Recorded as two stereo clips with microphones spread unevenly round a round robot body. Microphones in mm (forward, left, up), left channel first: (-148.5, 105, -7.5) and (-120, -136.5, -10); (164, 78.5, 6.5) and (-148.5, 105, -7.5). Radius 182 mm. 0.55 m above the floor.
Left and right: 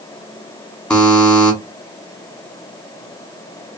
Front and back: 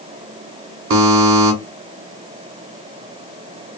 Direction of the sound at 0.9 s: 175° right.